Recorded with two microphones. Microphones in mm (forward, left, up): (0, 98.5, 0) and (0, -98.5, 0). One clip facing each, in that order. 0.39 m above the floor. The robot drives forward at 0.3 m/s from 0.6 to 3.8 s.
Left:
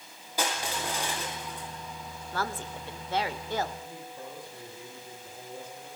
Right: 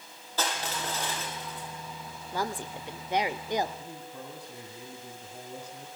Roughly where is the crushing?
Centre.